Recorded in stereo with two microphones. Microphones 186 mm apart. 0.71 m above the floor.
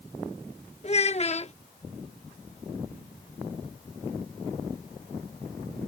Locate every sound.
0.8 s a child speaking: 35° left (ahead or behind)